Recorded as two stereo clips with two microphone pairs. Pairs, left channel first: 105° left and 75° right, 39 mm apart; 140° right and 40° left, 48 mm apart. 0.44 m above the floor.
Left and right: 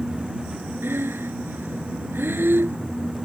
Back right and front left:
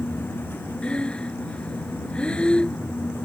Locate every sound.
0.8 s breathing: 70° right